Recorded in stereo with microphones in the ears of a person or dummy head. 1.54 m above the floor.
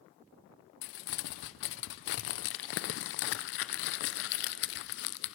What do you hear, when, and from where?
0.8 s crumpling: 60° left (ahead or behind), 0.6 m